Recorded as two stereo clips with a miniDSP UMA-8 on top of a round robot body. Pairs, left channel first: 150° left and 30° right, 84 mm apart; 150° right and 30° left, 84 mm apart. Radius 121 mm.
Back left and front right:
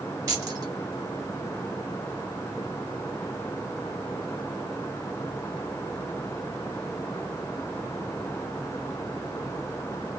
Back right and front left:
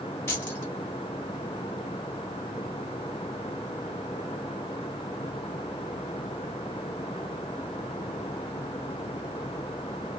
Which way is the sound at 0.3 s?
80° right.